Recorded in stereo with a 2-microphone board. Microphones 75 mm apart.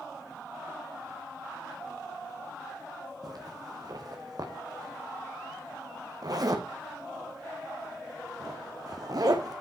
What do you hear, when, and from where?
3.2 s a zipper: 55° right (ahead or behind), 1.6 m